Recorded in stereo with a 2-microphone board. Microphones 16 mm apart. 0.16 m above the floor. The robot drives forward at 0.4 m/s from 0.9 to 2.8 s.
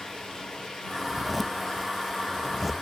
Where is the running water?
55° left (ahead or behind), 10 m; by 2.8 s 60° left (ahead or behind), 9.5 m.